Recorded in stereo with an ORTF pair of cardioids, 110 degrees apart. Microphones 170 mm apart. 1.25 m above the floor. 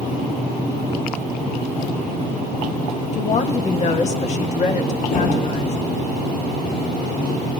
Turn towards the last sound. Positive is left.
turn(degrees=55)